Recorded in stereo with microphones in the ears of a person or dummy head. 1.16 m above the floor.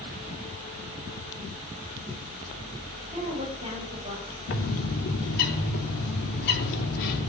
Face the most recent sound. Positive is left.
turn(degrees=65)  # may be behind; listen again after turning